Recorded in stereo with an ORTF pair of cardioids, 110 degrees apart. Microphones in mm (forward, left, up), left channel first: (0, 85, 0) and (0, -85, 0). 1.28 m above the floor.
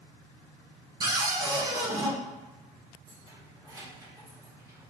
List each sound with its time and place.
1.0 s a cupboard door: 25° right, 1.3 m
3.1 s keys jangling: 20° right, 2 m